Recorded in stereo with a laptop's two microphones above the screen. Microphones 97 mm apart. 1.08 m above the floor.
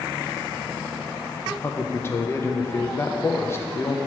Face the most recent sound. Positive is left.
turn(degrees=25)  # may be behind; listen again after turning